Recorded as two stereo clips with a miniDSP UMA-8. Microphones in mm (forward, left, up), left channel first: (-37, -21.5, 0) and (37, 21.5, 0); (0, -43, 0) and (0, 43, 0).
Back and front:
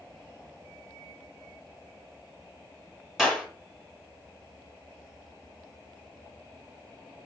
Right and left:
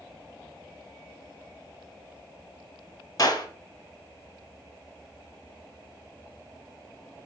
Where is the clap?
55° right, 2 m.